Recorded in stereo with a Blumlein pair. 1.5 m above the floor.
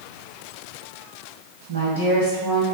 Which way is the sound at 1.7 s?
60° right.